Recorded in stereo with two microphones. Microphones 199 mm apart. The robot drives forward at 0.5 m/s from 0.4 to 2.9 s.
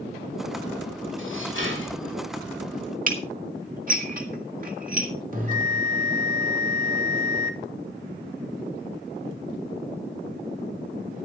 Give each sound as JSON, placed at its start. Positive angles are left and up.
{"t": 1.2, "sound": "dishes clattering", "side_deg": -85, "distance_m": 5.5}
{"t": 3.1, "sound": "dishes clattering", "side_deg": -45, "distance_m": 1.8}
{"t": 5.3, "sound": "a bell", "side_deg": -45, "distance_m": 2.5}